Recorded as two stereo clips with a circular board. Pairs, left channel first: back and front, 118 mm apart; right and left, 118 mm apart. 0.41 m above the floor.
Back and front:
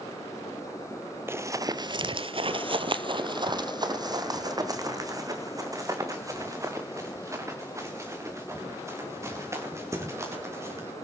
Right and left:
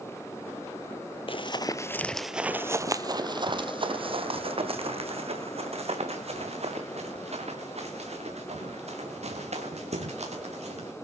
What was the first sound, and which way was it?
Running footsteps, 65° right.